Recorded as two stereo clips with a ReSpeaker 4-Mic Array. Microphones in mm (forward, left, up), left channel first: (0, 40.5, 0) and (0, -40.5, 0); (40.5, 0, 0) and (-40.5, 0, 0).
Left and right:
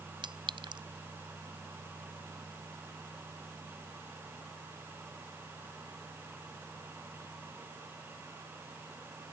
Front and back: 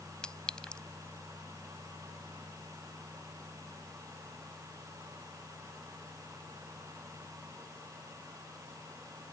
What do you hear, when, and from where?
0.2 s a clink: 80° right